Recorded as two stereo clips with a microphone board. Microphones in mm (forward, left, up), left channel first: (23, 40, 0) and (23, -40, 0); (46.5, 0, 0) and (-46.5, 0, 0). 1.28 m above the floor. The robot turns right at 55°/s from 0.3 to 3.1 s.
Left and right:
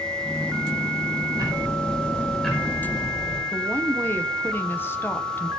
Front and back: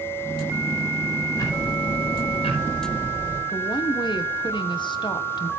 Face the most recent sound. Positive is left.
turn(degrees=30)